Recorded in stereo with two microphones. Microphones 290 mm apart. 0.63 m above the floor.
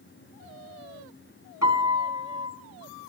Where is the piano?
70° left (ahead or behind), 3.5 m.